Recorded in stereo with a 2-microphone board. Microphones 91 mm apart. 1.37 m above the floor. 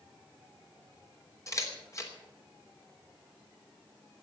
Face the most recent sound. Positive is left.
turn(degrees=35)  # may be behind; listen again after turning